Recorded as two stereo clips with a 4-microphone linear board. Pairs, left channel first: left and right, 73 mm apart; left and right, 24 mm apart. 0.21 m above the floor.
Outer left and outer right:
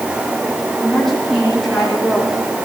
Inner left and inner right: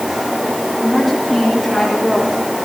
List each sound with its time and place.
0.8 s a woman speaking: centre (ahead or behind), 10 m; by 2.4 s 5° right (ahead or behind), 10 m